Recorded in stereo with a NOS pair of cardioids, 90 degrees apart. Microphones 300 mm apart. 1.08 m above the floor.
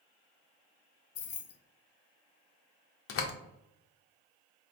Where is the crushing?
I don't hear crushing.